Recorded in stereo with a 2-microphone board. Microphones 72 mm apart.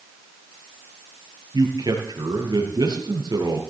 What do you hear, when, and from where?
1.5 s a man speaking: 75° right (ahead or behind), 4.5 m